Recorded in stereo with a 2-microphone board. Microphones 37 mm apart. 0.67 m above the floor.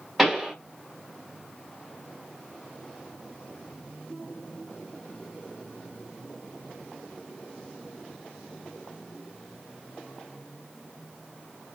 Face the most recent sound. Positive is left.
turn(degrees=-5)  # may be behind; listen again after turning